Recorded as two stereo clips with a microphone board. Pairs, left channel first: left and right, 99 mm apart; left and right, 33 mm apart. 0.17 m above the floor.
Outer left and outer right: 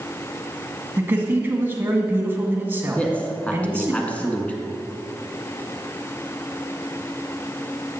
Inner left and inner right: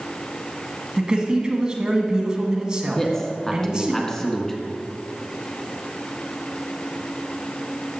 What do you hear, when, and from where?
1.0 s a man speaking: 25° right (ahead or behind), 1.6 m
3.0 s a man speaking: 15° left (ahead or behind), 1.6 m